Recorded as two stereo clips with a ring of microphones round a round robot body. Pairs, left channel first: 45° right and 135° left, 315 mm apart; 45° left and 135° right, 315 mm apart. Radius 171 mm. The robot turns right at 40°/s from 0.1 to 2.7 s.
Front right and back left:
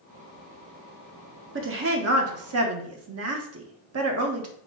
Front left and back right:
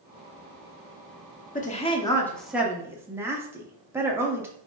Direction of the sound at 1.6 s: 100° left.